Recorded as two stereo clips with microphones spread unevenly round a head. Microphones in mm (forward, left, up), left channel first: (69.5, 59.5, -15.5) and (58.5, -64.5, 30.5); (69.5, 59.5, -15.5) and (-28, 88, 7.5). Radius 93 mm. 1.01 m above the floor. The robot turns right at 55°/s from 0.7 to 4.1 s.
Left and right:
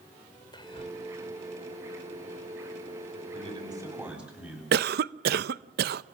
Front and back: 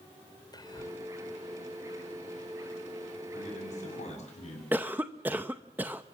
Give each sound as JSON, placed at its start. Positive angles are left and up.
{"t": 0.5, "sound": "whispering", "azimuth_deg": 30, "distance_m": 4.5}
{"t": 3.3, "sound": "a man speaking", "azimuth_deg": -55, "distance_m": 7.5}
{"t": 4.7, "sound": "a cough", "azimuth_deg": -115, "distance_m": 0.5}